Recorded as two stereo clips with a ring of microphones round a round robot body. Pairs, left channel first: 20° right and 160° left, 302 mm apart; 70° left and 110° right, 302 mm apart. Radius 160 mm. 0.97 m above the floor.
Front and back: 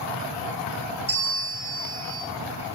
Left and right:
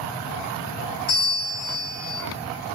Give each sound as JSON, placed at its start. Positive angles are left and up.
{"t": 1.1, "sound": "a bell", "azimuth_deg": 90, "distance_m": 4.0}